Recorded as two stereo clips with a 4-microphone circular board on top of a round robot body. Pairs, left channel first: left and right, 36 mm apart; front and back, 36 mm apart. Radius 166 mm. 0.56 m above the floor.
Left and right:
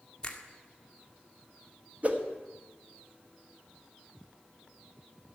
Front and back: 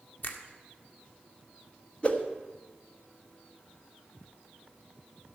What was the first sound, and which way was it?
A finger snap, 20° left.